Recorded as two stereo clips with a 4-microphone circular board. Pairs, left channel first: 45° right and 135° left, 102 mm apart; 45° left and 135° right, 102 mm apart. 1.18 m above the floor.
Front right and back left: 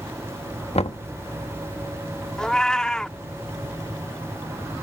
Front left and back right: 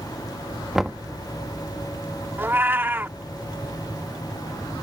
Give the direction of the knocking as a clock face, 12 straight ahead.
2 o'clock.